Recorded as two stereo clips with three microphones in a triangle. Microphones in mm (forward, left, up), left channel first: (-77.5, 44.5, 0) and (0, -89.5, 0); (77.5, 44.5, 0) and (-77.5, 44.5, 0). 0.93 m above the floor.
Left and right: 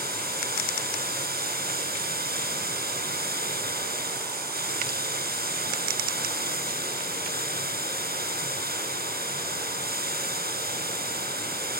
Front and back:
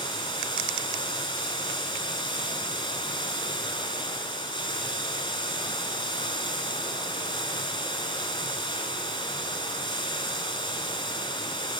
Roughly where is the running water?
Ahead right.